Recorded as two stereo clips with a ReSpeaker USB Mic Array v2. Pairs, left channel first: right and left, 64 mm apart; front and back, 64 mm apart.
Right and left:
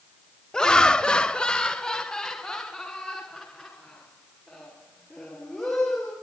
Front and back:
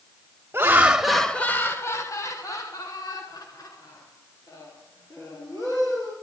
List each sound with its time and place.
0.5 s laughter: 165° right, 1.1 m; by 6.1 s 5° right, 6 m